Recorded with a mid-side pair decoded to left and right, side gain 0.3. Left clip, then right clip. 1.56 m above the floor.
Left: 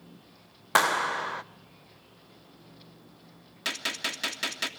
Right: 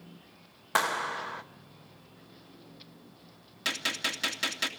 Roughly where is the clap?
Ahead left.